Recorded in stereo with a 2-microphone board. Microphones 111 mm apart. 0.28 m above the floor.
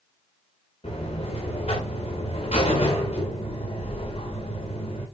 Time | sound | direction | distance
0.8 | a buzzer | 65° left (ahead or behind) | 8.5 m